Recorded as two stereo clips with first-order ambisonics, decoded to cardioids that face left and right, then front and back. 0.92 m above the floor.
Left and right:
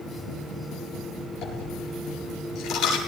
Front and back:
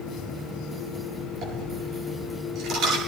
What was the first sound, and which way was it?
A dropped coin, 135° left.